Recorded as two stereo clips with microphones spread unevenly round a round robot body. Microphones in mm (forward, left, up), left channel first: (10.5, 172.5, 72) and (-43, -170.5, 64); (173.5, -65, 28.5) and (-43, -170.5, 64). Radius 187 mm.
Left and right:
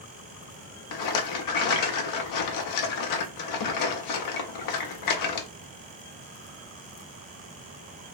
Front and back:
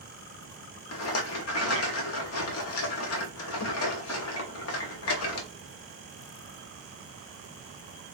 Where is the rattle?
45° left, 0.6 m.